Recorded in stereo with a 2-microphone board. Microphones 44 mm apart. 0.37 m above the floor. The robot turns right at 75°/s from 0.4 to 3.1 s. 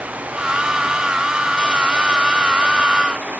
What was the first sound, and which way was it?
Only background noise.